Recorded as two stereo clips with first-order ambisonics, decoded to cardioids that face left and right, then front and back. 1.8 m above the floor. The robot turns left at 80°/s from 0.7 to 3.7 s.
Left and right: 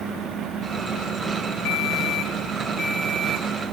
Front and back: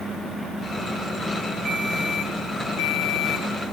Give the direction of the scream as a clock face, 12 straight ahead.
No scream in this recording.